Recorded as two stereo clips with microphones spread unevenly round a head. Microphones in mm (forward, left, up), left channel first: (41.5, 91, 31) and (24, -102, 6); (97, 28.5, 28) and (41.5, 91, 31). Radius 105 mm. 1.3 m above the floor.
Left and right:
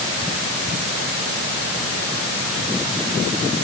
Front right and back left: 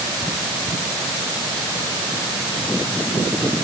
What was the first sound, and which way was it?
Only background noise.